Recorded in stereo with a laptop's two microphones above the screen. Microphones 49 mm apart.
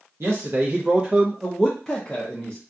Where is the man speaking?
60° right (ahead or behind), 0.8 m; by 2.6 s 35° left (ahead or behind), 1.0 m.